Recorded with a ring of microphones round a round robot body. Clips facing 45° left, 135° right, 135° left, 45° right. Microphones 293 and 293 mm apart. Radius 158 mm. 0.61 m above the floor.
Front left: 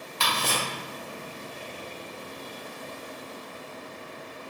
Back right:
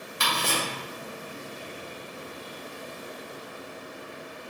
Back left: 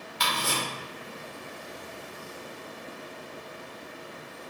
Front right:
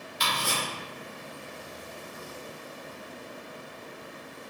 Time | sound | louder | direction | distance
0.2 | ticking | back right 1 dB, back left 1 dB | 155° left | 1.3 m